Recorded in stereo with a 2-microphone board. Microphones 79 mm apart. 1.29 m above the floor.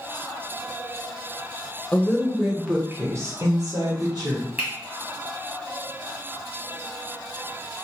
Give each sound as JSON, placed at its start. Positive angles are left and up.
{"t": 1.9, "sound": "a woman speaking", "side_deg": 20, "distance_m": 0.7}
{"t": 4.6, "sound": "a finger snap", "side_deg": -20, "distance_m": 1.1}